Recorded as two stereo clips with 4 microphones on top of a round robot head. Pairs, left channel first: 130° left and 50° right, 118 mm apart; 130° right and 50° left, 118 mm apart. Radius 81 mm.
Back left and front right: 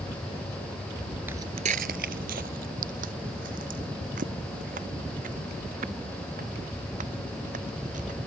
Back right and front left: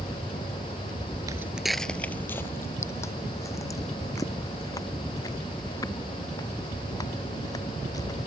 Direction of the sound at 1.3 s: 10° left.